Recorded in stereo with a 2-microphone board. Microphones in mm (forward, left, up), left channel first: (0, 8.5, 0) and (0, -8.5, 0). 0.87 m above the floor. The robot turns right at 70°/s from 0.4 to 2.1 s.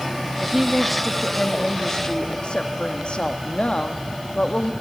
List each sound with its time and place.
0.4 s a woman speaking: 35° right, 1.6 m; by 4.7 s 80° left, 1.6 m